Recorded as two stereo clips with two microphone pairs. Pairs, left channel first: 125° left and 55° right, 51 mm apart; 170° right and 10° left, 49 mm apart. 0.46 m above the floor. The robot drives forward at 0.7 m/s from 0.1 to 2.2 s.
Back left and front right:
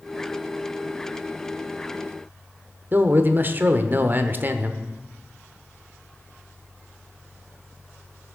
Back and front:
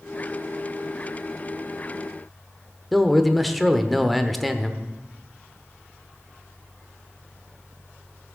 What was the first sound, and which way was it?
A man speaking, 80° right.